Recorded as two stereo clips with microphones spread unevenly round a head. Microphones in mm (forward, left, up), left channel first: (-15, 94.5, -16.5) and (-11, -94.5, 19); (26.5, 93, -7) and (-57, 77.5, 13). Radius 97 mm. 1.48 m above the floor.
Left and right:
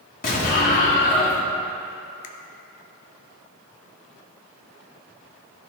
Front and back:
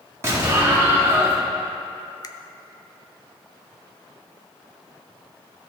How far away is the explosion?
About 1.8 m.